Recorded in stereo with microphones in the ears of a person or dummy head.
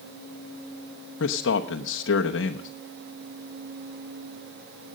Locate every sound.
1.2 s a man speaking: 75° left (ahead or behind), 0.9 m